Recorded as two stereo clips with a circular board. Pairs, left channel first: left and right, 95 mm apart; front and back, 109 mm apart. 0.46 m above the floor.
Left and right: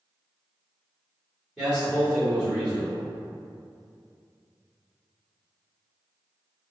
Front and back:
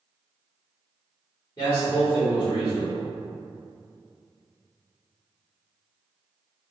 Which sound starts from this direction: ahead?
A man speaking, at 1.6 s.